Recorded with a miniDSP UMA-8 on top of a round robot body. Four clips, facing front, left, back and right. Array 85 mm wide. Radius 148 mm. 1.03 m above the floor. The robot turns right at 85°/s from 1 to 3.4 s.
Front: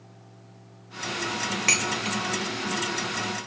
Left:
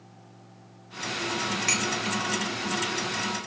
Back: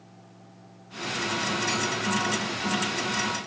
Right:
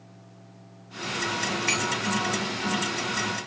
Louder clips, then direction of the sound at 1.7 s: Right 2 dB, back 1 dB; 10° right.